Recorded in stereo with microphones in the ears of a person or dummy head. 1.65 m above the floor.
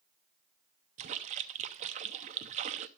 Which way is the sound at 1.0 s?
35° right (ahead or behind).